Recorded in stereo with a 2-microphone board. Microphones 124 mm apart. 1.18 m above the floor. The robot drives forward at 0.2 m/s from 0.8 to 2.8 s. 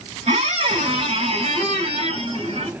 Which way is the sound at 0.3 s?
55° right (ahead or behind).